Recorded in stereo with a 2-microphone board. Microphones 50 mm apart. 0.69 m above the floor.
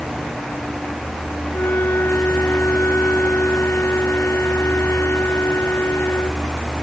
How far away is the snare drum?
I don't hear a snare drum.